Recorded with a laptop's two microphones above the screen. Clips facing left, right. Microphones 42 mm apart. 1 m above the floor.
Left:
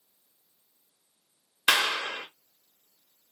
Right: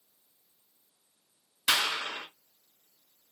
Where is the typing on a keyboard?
No typing on a keyboard in this recording.